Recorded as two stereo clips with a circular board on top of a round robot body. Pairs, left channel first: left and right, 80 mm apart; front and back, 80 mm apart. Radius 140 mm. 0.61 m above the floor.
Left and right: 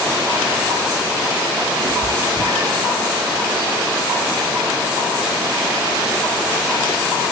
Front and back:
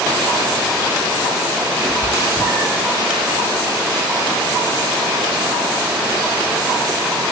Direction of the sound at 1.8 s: 115° right.